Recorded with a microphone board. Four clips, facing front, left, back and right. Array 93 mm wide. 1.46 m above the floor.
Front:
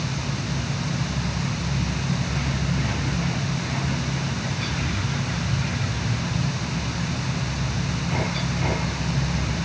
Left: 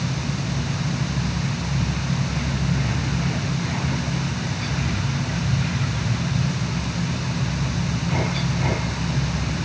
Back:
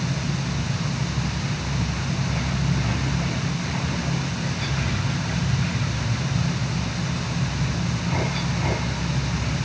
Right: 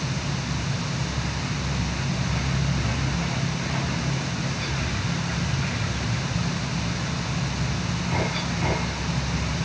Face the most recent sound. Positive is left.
No sound to turn to.